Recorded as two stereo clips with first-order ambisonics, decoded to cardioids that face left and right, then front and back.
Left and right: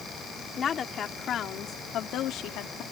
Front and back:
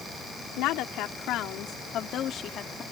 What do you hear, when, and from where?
0.6 s a woman speaking: 25° left; by 2.8 s 60° left